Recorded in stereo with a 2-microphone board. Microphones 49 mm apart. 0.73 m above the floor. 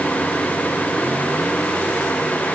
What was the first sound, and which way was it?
Only background noise.